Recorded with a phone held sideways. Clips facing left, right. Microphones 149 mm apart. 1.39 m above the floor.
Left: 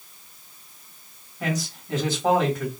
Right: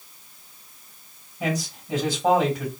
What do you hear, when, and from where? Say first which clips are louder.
1.4 s a man speaking: right 1 dB; 10° right (ahead or behind), 2.5 m